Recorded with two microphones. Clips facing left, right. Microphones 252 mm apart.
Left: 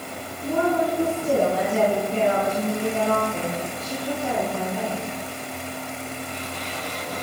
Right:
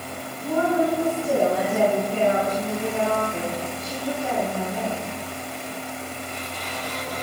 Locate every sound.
0.4 s a woman speaking: 30° left (ahead or behind), 6.5 m; by 5.0 s 10° left (ahead or behind), 6.5 m